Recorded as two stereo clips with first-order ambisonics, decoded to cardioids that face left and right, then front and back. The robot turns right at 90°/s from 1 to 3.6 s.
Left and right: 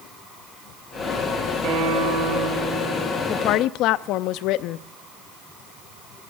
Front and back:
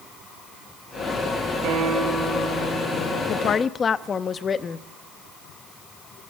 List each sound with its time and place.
1.6 s a guitar: 140° right, 4.5 m; by 3.2 s straight ahead, 4.5 m
3.3 s a woman speaking: 40° left, 0.7 m; by 4.9 s 65° left, 0.7 m